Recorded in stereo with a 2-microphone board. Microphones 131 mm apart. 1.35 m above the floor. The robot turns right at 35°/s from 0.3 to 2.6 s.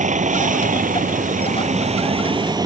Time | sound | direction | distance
0.0 | a vehicle | 110° right | ?